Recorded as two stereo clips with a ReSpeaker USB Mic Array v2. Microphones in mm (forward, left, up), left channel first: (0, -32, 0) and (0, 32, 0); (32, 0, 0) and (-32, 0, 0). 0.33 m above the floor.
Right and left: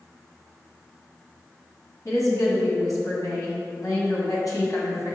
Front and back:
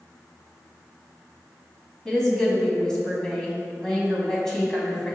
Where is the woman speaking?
80° right, 2 m.